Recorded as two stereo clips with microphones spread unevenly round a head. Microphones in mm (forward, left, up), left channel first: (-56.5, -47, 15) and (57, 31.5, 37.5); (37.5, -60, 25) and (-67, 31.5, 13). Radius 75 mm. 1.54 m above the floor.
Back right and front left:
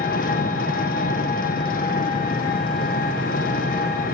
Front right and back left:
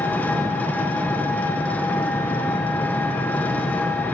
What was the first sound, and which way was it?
An engine running, 115° right.